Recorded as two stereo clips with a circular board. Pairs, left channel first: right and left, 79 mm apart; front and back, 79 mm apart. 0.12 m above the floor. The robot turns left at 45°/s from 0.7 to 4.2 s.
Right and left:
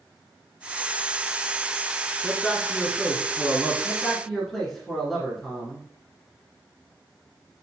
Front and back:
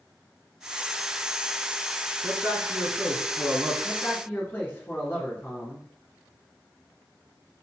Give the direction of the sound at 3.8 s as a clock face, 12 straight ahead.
12 o'clock.